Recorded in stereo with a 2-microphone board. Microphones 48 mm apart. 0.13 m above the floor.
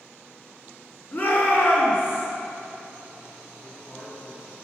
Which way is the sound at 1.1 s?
45° left (ahead or behind).